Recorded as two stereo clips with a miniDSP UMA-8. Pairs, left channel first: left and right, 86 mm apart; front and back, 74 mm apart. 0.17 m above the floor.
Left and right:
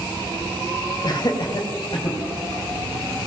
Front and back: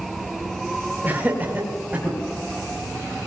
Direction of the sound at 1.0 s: 115° left.